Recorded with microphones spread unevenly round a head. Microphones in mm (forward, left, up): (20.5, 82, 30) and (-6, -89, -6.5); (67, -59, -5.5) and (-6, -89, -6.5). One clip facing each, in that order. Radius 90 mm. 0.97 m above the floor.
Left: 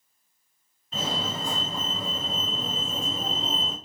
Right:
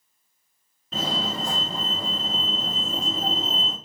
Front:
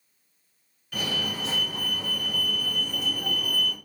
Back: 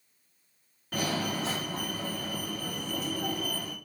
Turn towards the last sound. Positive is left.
turn(degrees=-110)